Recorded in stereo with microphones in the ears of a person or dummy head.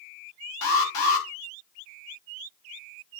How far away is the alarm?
About 3 m.